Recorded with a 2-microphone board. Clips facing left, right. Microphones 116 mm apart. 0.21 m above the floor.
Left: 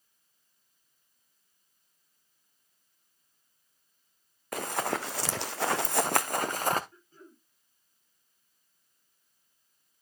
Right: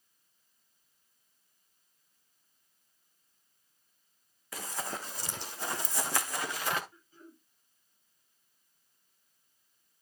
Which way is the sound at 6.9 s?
45° left (ahead or behind).